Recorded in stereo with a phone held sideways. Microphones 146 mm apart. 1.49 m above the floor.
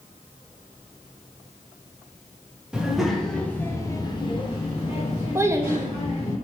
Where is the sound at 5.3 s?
20° right (ahead or behind), 0.5 m.